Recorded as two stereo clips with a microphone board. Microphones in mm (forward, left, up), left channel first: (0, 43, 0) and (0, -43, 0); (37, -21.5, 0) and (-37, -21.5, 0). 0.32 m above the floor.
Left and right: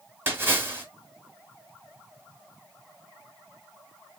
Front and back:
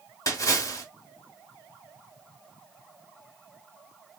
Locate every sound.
0.3 s a splash: 35° right, 1.3 m